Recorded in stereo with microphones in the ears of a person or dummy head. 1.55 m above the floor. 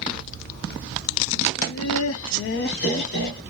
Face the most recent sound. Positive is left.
turn(degrees=45)  # may be behind; listen again after turning